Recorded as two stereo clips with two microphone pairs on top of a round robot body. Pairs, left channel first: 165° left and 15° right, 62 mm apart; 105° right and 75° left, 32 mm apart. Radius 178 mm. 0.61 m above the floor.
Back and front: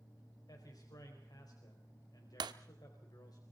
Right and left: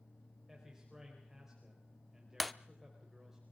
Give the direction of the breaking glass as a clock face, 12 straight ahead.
1 o'clock.